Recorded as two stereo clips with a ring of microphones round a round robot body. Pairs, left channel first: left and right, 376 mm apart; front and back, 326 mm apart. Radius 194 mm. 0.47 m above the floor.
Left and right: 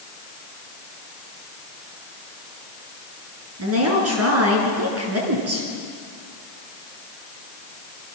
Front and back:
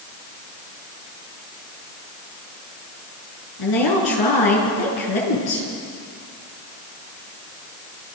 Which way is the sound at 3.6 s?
35° right.